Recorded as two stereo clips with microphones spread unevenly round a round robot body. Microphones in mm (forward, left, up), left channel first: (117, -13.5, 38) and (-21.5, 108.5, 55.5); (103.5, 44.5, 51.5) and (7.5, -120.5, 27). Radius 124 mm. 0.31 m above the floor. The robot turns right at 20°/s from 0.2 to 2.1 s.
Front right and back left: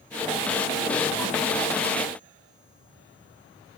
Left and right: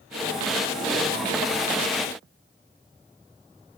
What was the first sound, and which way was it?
Only background noise.